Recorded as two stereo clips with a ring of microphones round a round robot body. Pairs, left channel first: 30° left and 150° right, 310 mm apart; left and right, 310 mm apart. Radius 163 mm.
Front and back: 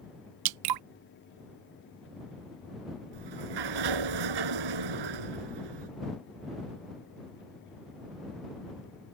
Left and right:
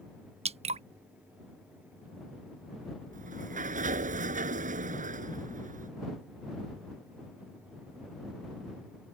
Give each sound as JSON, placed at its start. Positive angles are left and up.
{"t": 0.5, "sound": "dripping", "azimuth_deg": -160}
{"t": 3.1, "sound": "a sliding door", "azimuth_deg": -155}